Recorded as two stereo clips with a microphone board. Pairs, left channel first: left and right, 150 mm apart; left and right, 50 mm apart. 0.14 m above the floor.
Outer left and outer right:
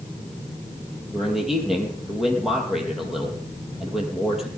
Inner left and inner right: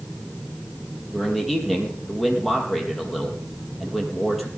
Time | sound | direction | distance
1.1 | a man speaking | centre (ahead or behind) | 4.5 m